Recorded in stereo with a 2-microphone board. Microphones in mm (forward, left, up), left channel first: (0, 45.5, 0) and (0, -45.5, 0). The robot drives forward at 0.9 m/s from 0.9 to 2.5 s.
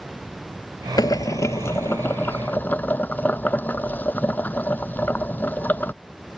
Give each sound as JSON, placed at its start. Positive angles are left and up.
{"t": 1.0, "sound": "boiling", "side_deg": 45}